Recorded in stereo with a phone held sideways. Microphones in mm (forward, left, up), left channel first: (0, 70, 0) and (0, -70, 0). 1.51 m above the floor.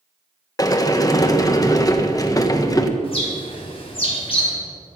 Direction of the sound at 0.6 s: 25° left (ahead or behind).